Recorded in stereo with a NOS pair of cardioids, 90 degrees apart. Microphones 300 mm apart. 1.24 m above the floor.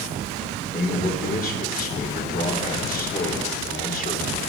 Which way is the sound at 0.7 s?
30° left.